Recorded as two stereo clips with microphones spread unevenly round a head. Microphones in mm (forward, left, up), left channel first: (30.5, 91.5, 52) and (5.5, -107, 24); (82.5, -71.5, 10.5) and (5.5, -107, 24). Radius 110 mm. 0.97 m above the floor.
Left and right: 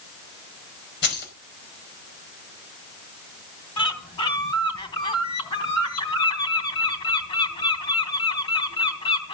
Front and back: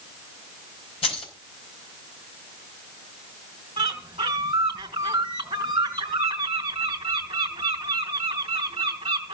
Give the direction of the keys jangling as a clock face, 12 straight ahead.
10 o'clock.